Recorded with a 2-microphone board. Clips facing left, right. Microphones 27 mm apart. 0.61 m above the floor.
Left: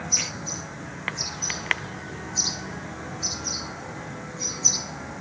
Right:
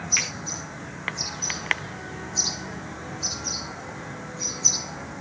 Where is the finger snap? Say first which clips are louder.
Right 6 dB; 80° right, 5 m.